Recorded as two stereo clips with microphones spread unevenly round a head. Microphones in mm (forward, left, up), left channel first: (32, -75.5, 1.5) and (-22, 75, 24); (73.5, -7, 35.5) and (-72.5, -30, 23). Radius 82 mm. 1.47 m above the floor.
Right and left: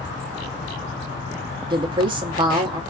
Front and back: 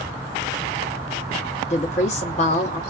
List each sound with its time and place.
1.7 s a woman speaking: 55° left, 0.7 m